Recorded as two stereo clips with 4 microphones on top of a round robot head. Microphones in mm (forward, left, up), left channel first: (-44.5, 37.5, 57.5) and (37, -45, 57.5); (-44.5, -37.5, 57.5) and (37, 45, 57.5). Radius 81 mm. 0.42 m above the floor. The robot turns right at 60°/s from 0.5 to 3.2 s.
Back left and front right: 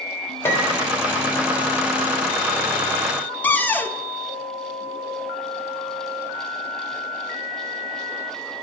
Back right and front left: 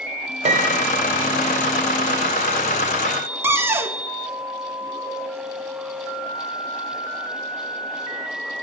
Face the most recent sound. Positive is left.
turn(degrees=80)